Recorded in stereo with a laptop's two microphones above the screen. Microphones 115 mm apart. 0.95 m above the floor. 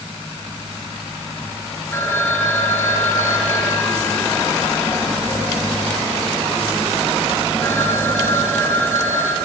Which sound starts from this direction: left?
A phone ringing, at 1.9 s.